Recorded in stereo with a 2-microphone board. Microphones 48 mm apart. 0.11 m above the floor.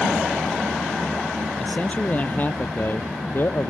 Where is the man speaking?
25° left (ahead or behind); by 3.7 s 50° left (ahead or behind).